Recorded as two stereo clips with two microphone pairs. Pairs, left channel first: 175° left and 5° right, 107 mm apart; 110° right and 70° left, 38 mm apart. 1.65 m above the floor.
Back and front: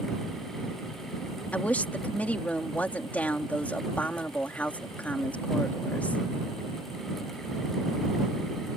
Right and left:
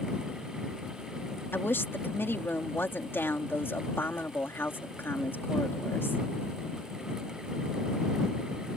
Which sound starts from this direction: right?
A woman speaking, at 1.5 s.